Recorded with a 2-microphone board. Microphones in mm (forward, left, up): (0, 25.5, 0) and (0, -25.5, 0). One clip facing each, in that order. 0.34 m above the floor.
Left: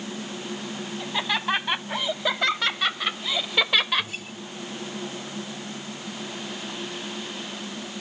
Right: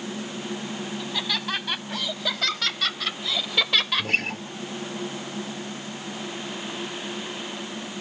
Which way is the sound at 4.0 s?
65° right (ahead or behind).